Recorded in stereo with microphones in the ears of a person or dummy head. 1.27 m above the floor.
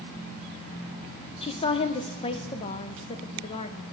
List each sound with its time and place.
1.4 s a woman speaking: 30° left (ahead or behind), 0.5 m